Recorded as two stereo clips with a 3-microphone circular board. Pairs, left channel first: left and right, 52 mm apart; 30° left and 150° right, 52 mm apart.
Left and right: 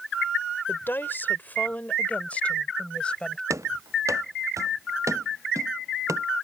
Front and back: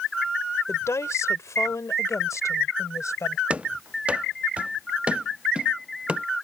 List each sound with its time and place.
0.7 s a woman speaking: 50° left; by 3.4 s 20° left
3.5 s running footsteps: 85° right; by 6.2 s 80° right